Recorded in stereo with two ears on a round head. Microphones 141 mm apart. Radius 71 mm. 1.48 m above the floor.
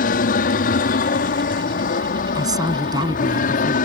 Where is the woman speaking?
25° right (ahead or behind).